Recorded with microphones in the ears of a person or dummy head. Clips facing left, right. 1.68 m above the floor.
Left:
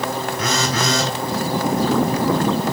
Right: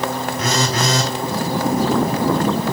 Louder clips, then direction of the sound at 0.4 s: Right 2 dB; 30° right (ahead or behind).